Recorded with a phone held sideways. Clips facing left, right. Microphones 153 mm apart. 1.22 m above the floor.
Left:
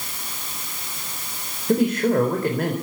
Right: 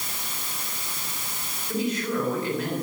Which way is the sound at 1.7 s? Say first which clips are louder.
Left 8 dB; 55° left (ahead or behind).